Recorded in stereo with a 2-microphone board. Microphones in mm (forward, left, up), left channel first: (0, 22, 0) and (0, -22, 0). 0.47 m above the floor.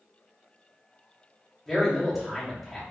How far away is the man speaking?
About 0.7 m.